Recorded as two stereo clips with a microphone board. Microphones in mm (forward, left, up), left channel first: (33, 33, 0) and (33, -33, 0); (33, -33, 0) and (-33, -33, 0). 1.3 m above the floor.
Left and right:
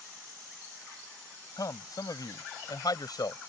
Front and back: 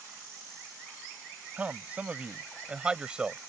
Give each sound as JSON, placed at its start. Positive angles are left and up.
{"t": 1.6, "sound": "a man speaking", "azimuth_deg": 110}